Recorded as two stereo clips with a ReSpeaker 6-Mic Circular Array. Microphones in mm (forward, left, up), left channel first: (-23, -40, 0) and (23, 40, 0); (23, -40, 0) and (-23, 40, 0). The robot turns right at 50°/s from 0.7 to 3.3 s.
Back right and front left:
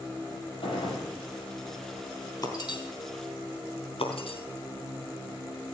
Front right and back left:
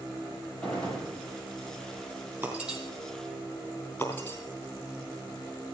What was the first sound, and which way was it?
A gunshot, 140° right.